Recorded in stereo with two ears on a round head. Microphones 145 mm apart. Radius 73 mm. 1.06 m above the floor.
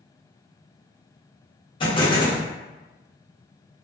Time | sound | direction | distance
1.8 | an explosion | 30° left (ahead or behind) | 0.7 m